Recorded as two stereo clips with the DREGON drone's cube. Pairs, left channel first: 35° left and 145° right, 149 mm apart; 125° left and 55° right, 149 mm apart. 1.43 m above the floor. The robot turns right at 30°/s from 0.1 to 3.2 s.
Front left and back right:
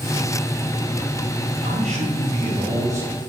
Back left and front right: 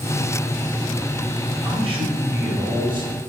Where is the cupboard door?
I don't hear a cupboard door.